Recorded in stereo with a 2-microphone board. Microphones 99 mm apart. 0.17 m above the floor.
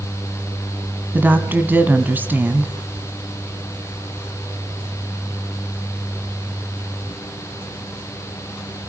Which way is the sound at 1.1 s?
20° right (ahead or behind).